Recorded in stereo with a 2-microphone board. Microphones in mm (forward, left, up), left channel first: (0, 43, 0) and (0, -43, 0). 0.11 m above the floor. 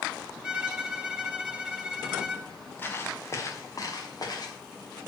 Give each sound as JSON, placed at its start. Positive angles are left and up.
{"t": 0.4, "sound": "a violin", "side_deg": -5, "distance_m": 1.1}
{"t": 2.8, "sound": "footsteps", "side_deg": 25, "distance_m": 1.7}